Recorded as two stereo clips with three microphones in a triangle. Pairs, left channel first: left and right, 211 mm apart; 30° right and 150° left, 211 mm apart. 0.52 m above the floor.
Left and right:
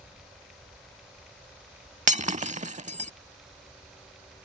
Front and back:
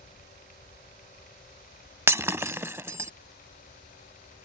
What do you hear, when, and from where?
2.1 s breaking glass: 135° right